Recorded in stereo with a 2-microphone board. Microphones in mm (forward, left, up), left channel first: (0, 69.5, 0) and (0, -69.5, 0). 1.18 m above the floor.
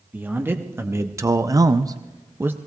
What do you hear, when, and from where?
0.1 s a man speaking: 15° right (ahead or behind), 1.4 m